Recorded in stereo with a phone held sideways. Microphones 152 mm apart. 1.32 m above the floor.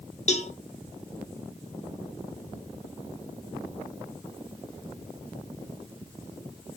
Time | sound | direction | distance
0.3 | a cowbell | 45° left (ahead or behind) | 0.5 m